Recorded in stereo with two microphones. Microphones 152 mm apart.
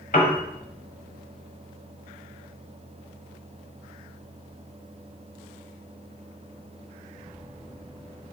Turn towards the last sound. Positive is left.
turn(degrees=65)  # may be behind; listen again after turning